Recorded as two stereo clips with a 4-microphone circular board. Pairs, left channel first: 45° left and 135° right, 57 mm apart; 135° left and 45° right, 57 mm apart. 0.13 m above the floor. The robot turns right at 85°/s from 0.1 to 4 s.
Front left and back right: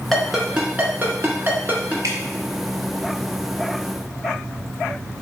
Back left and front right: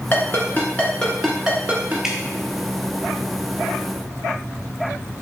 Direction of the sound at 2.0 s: 125° right.